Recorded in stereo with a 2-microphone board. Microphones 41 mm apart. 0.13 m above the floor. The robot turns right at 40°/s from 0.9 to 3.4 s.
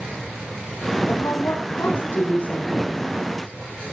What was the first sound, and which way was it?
A woman speaking, 85° left.